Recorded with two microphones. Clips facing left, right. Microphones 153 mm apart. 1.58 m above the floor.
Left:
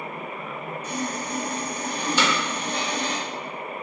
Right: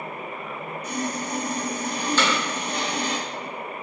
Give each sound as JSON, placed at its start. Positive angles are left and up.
{"t": 0.8, "sound": "sawing", "side_deg": -10, "distance_m": 1.0}
{"t": 2.2, "sound": "hammering", "side_deg": 10, "distance_m": 0.7}